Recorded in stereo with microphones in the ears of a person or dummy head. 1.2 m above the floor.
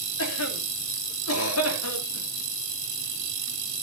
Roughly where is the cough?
Left.